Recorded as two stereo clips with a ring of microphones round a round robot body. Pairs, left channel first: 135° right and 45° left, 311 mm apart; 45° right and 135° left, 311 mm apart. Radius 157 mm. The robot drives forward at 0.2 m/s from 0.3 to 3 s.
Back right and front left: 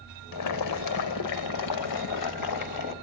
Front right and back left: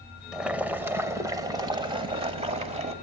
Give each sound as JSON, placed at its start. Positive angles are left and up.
{"t": 0.3, "sound": "boiling", "azimuth_deg": -135, "distance_m": 0.9}